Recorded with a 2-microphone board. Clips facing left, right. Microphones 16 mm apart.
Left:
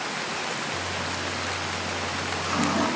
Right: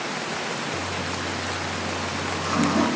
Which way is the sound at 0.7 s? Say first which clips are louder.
Right 1 dB; 10° right (ahead or behind).